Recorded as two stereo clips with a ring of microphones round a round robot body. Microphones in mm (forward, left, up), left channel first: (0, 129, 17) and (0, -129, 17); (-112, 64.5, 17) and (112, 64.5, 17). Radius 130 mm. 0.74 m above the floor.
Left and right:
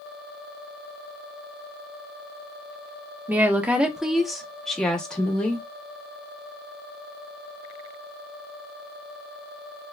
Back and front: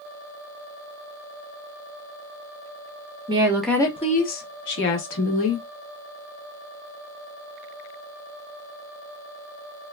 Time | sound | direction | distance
3.3 | a woman speaking | 20° right | 0.5 m